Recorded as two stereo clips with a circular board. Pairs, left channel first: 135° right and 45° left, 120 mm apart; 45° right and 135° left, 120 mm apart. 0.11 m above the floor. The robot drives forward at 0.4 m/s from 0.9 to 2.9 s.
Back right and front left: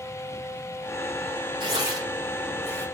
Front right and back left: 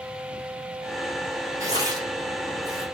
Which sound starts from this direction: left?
Tearing paper, at 1.6 s.